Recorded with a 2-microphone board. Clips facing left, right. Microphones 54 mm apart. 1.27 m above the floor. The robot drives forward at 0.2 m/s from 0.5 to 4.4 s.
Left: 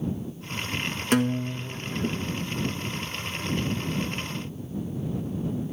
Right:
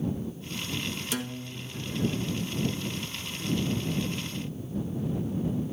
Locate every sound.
1.1 s a guitar: 50° left (ahead or behind), 1.2 m; by 2.2 s 40° left (ahead or behind), 1.3 m